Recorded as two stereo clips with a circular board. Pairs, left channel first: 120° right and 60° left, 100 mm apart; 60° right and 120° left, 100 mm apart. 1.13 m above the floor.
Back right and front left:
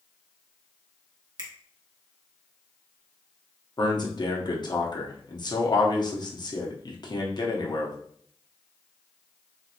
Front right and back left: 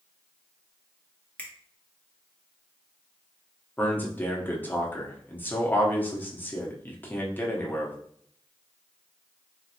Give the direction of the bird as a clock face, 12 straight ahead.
No bird in this recording.